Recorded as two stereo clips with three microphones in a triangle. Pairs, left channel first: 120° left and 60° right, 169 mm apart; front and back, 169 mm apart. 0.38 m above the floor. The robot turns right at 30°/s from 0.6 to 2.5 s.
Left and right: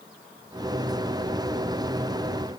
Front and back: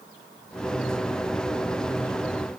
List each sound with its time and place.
Only background noise.